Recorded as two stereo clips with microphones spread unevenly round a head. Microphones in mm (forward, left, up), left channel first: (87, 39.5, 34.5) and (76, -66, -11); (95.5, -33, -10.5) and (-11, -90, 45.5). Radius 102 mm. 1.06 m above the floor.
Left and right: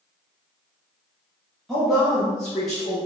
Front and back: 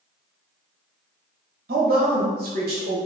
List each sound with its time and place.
1.7 s a woman speaking: 175° right, 1.3 m